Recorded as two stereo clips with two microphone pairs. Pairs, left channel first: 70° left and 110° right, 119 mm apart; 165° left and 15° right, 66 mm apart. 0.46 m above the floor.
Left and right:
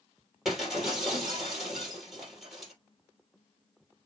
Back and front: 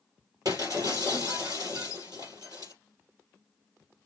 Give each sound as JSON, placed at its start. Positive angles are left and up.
{"t": 0.5, "sound": "breaking glass", "azimuth_deg": -25, "distance_m": 3.0}